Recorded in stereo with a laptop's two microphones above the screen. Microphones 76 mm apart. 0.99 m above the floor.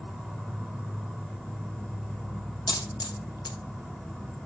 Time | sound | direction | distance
0.0 | an insect | 10° left (ahead or behind) | 1.0 m
2.7 | a dropped coin | 70° left (ahead or behind) | 1.6 m